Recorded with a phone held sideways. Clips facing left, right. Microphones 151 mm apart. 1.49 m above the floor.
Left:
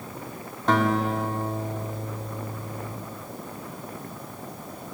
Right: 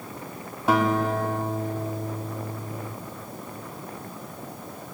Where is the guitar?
10° right (ahead or behind), 2 m.